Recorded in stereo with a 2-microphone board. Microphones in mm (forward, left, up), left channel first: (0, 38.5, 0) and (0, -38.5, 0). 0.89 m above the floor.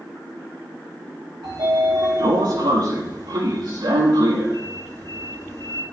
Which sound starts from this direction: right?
A sliding door, at 1.4 s.